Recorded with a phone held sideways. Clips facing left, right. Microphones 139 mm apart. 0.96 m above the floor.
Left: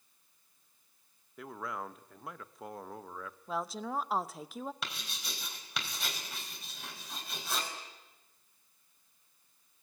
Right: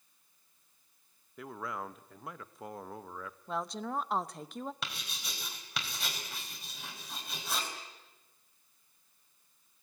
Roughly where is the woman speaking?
Centre.